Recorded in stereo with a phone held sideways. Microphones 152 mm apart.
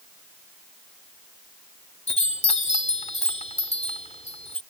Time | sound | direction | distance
2.1 | a chime | 45° left (ahead or behind) | ?